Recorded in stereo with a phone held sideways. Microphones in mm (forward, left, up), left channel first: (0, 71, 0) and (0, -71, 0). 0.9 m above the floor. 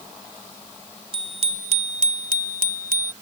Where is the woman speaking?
No woman speaking in this recording.